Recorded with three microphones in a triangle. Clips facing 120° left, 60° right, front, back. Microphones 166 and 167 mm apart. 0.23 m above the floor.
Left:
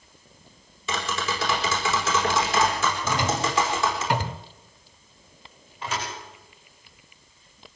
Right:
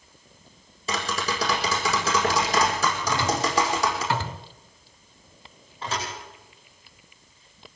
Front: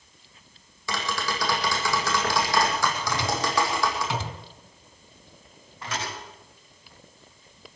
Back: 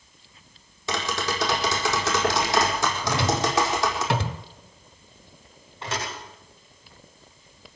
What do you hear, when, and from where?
0.9 s tapping: 110° right, 4.5 m
3.0 s a drawer: 170° right, 0.9 m
5.8 s a thud: 115° right, 9.5 m